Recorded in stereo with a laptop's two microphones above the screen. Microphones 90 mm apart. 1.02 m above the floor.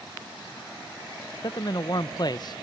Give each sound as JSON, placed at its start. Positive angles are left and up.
{"t": 1.4, "sound": "a man speaking", "side_deg": 50, "distance_m": 0.5}